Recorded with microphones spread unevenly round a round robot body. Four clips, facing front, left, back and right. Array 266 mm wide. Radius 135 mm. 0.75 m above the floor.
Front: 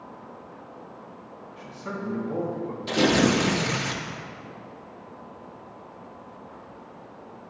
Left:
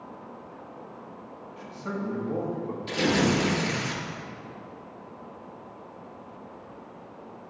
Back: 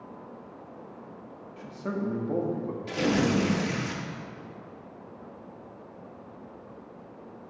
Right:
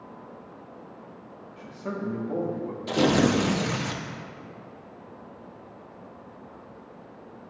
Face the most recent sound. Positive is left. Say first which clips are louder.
# right 3 dB, front 5 dB
turn(degrees=-55)